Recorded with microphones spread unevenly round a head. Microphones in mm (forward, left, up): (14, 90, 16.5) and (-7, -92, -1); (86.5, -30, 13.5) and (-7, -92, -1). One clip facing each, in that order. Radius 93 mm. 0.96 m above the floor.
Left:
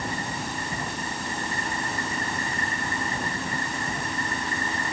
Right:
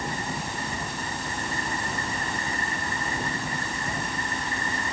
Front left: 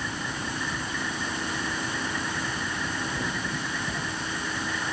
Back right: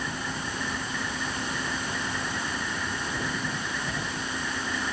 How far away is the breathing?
No breathing in this recording.